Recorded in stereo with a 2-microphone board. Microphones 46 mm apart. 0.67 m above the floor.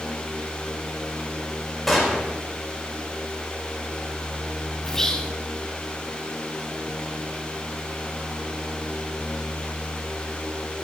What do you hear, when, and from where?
1.9 s a gunshot: centre (ahead or behind), 2.5 m
4.8 s whispering: 15° left (ahead or behind), 0.7 m